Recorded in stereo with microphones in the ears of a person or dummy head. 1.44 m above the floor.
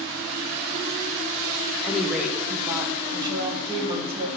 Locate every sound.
1.8 s a woman speaking: 5° left (ahead or behind), 1.7 m; by 4.3 s 30° right (ahead or behind), 2.5 m